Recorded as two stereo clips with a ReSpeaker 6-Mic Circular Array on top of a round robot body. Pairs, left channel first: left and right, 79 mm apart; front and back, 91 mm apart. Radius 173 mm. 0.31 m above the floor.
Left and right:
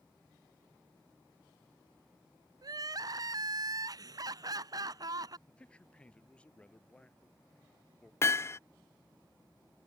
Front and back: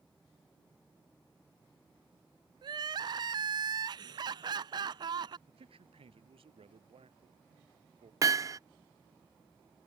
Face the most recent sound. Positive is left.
turn(degrees=140)